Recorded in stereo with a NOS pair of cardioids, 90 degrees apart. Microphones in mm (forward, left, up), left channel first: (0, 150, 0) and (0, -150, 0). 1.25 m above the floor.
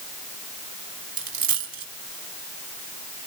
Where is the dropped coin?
65° right, 3.5 m.